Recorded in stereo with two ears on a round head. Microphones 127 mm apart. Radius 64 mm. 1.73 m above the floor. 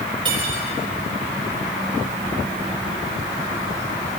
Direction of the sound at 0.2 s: 35° right (ahead or behind).